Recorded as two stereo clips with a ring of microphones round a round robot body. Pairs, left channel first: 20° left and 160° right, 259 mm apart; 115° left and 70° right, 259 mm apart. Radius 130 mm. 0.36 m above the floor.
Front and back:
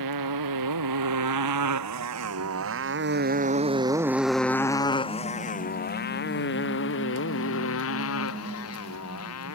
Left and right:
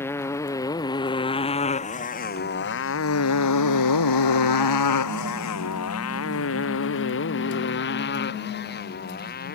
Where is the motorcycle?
165° right; by 9.6 s 55° left.